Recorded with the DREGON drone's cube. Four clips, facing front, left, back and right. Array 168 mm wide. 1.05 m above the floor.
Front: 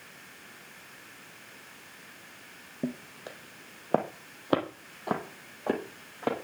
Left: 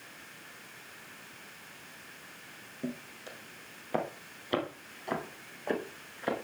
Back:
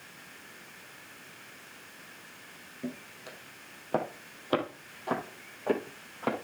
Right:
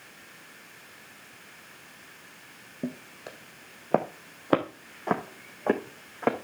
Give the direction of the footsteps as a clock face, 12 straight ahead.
1 o'clock.